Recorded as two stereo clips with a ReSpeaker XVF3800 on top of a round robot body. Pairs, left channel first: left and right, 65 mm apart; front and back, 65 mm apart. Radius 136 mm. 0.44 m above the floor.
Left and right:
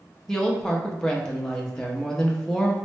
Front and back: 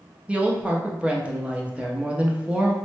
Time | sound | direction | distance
0.3 | a woman speaking | 150° left | 0.8 m